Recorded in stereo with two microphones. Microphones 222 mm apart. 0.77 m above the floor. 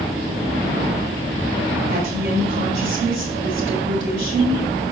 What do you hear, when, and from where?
1.9 s a woman speaking: 55° right (ahead or behind), 3 m